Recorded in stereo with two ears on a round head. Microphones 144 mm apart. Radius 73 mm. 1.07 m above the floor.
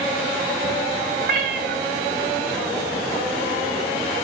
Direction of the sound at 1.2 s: 60° right (ahead or behind).